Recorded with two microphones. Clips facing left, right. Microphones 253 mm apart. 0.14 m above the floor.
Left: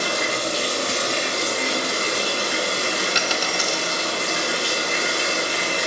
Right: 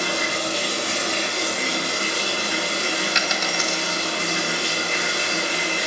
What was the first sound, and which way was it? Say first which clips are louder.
Running water: left 1 dB; 45° left (ahead or behind).